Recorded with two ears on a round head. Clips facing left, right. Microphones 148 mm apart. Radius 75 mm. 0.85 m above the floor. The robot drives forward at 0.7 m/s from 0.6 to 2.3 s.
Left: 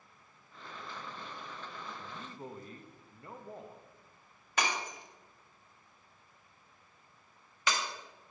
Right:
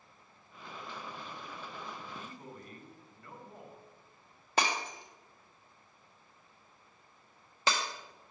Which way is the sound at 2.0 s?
25° left (ahead or behind).